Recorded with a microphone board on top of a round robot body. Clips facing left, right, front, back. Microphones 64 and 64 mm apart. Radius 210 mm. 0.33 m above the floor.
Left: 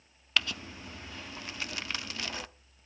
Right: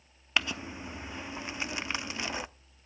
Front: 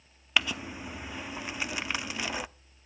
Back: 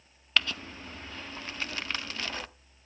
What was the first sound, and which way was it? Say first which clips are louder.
Crumpling: right 1 dB, front 1 dB; 60° right.